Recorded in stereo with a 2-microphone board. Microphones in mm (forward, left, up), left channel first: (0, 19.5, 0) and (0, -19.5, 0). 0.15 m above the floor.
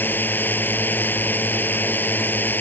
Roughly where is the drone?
Left.